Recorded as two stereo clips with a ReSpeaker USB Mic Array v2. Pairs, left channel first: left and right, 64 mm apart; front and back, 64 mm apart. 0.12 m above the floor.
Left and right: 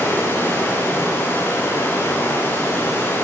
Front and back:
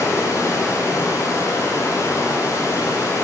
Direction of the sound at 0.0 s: 35° left.